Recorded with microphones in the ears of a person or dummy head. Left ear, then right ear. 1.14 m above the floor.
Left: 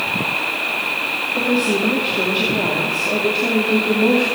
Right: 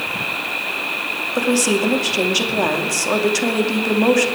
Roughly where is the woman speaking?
Right.